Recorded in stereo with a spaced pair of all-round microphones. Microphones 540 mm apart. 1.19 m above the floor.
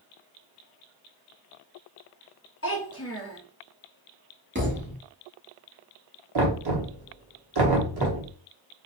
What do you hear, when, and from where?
2.6 s a child speaking: 25° left (ahead or behind), 1.1 m
4.5 s a thud: 20° right (ahead or behind), 0.9 m
6.3 s knocking: 50° right (ahead or behind), 0.9 m